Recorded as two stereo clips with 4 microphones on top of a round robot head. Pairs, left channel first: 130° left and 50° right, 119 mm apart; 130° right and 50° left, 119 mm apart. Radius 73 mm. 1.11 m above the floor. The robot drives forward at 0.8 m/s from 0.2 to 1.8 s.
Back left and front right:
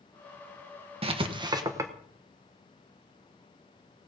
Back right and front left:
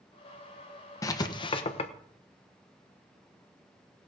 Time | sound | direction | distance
1.0 | writing | 75° right | 1.2 m